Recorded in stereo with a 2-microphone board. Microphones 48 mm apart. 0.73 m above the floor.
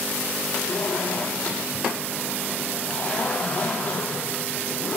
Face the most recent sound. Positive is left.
turn(degrees=25)  # may be behind; listen again after turning